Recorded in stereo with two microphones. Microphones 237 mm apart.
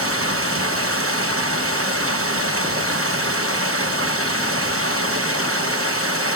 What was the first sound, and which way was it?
Running water, 65° right (ahead or behind).